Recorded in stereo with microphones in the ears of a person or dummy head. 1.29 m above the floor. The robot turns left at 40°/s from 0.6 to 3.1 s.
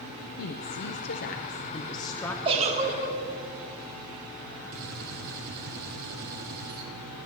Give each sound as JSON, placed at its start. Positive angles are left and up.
{"t": 0.4, "sound": "a woman speaking", "azimuth_deg": 85, "distance_m": 0.7}
{"t": 2.5, "sound": "a giggle", "side_deg": -25, "distance_m": 1.6}
{"t": 4.7, "sound": "a gunshot", "side_deg": -55, "distance_m": 1.5}